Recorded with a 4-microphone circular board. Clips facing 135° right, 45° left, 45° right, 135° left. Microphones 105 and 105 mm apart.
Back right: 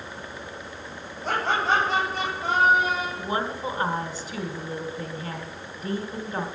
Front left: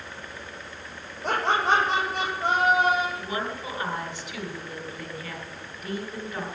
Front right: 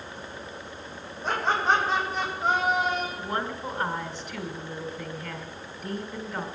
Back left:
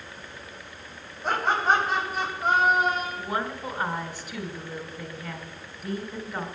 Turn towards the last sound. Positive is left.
turn(degrees=-140)